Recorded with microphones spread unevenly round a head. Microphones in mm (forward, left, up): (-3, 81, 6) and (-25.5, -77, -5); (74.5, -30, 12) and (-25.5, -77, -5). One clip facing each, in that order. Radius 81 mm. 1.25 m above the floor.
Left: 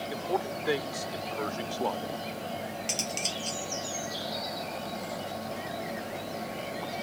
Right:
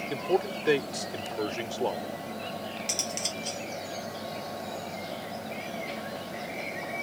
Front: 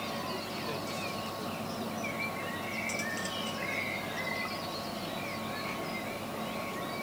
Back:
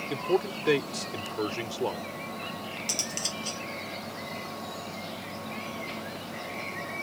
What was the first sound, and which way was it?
A man speaking, 155° right.